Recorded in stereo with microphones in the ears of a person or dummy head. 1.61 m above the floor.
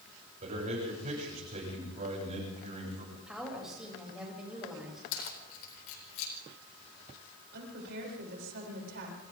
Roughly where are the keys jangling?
Left.